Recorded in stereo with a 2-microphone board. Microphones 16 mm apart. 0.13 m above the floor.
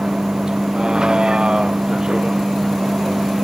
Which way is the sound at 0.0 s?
55° right (ahead or behind).